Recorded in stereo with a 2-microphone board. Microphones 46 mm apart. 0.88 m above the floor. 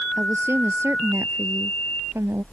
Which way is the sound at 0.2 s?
75° right (ahead or behind).